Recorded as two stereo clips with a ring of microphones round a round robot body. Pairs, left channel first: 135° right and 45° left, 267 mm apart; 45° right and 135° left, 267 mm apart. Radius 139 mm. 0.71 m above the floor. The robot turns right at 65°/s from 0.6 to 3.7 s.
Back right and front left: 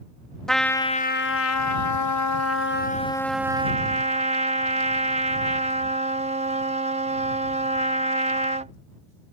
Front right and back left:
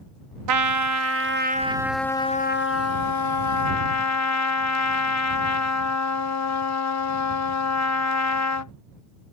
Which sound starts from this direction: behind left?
A trumpet, at 0.5 s.